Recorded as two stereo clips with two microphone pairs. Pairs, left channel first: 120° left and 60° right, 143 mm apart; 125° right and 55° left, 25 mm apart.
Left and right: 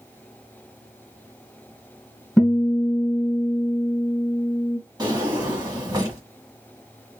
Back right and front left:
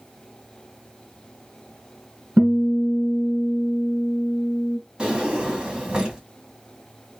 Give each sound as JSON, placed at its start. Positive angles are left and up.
{"t": 2.4, "sound": "a guitar", "azimuth_deg": 35, "distance_m": 2.5}
{"t": 5.0, "sound": "a drawer", "azimuth_deg": 0, "distance_m": 1.7}